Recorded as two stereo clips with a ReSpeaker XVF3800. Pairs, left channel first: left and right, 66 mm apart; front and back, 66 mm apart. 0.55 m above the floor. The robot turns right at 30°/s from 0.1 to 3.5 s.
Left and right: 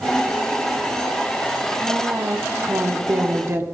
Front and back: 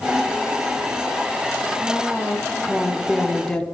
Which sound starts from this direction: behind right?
A woman speaking, at 1.8 s.